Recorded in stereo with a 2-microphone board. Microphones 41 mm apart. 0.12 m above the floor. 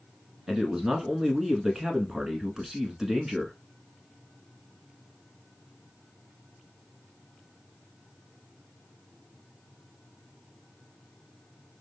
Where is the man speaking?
15° right (ahead or behind), 1.1 m.